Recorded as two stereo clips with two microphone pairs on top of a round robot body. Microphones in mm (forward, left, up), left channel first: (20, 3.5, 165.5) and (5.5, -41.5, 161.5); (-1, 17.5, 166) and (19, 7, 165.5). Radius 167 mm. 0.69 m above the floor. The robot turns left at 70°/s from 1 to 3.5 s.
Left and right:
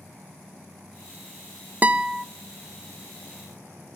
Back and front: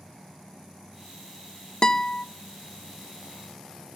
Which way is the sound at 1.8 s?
150° right.